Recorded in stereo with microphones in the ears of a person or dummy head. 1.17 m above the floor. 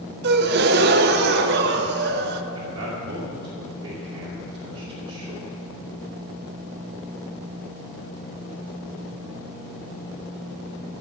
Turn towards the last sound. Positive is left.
turn(degrees=-25)  # may be behind; listen again after turning